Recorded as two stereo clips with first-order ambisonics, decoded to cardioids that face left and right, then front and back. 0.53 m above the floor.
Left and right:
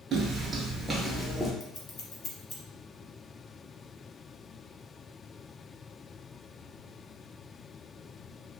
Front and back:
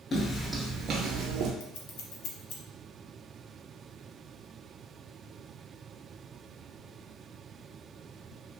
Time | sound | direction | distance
0.1 | footsteps | 60° right | 0.6 m
1.6 | scissors | 25° left | 0.6 m